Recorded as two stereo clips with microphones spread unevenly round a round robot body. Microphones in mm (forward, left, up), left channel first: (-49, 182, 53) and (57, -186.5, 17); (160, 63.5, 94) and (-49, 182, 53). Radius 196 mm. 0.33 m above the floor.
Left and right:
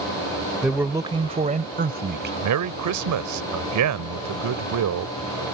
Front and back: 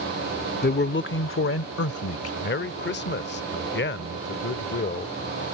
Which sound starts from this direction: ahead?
A man speaking, at 0.6 s.